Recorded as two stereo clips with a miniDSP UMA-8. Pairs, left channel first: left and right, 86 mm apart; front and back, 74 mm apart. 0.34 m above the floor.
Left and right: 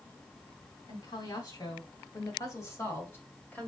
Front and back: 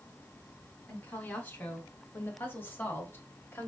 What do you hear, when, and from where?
0.9 s a woman speaking: 65° left, 2.5 m; by 3.7 s 30° left, 1.5 m